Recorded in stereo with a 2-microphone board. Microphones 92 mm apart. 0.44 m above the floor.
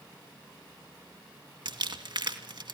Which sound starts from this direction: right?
Crumpling, at 1.6 s.